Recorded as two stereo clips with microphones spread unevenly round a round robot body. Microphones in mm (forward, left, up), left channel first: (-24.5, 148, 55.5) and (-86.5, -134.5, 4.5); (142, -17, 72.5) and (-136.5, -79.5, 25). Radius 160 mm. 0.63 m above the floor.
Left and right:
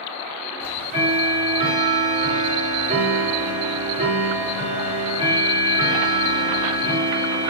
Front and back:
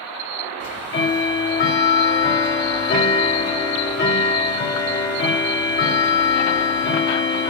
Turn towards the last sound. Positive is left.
turn(degrees=-40)